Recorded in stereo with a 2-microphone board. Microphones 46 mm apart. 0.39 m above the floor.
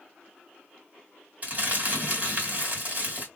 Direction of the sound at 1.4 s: 35° right (ahead or behind).